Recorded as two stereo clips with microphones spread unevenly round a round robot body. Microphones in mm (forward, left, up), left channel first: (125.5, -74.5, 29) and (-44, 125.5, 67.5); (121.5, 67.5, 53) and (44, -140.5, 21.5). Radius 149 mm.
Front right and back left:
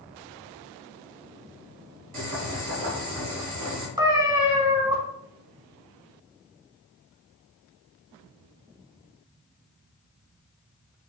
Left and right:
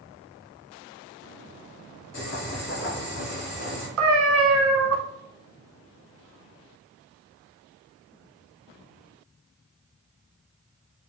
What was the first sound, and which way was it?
Boiling, 105° left.